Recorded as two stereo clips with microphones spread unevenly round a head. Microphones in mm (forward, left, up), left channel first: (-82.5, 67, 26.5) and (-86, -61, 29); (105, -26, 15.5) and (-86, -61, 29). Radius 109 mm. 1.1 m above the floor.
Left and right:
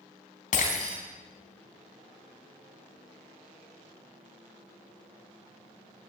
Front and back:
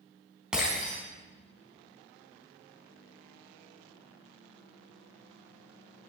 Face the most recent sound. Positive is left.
turn(degrees=105)